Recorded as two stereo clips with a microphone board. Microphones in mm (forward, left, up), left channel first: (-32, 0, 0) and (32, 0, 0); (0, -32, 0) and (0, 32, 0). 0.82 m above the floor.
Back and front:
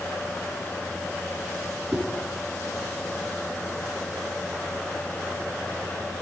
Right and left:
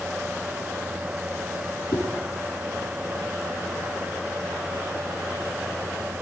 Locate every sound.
1.9 s a whoosh: 70° right, 9.5 m